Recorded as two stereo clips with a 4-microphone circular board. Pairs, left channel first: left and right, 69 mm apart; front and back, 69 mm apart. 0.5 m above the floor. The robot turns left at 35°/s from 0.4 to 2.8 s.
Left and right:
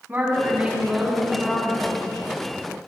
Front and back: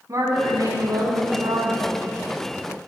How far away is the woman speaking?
About 4.5 m.